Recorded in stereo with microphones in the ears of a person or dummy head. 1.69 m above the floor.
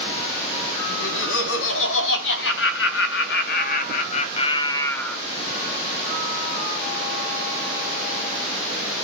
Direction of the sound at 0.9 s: 80° left.